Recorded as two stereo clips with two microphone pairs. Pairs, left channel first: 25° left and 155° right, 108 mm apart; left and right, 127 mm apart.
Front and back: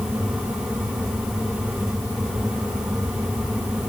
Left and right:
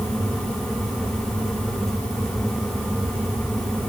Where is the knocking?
No knocking in this recording.